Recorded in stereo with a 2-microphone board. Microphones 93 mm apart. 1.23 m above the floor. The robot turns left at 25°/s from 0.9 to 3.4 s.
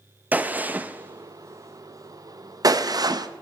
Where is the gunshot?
20° right (ahead or behind), 0.6 m; by 3.3 s 50° right (ahead or behind), 0.6 m.